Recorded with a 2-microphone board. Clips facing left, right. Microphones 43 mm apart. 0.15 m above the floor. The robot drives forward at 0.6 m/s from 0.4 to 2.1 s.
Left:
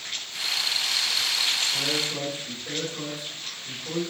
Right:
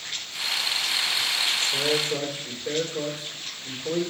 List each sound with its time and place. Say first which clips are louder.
1.7 s a man speaking: right 3 dB; 40° right (ahead or behind), 4 m; by 4.0 s 35° right (ahead or behind), 4 m